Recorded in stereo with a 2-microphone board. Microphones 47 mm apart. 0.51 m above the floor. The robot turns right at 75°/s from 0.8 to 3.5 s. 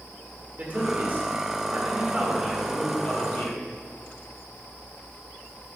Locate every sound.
0.6 s a man speaking: 130° right, 1.9 m; by 3.6 s 70° left, 1.9 m